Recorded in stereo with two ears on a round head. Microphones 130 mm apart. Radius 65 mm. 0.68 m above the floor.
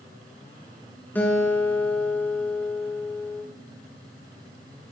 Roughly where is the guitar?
Centre.